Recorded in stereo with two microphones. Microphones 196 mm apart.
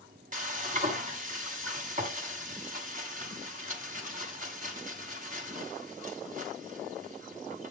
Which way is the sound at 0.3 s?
45° right (ahead or behind).